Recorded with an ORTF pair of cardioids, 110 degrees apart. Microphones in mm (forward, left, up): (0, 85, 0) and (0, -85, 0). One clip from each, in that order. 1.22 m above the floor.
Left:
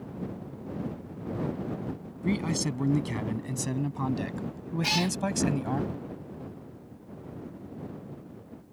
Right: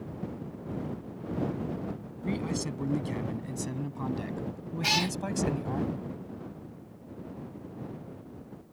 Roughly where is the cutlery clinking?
I don't hear cutlery clinking.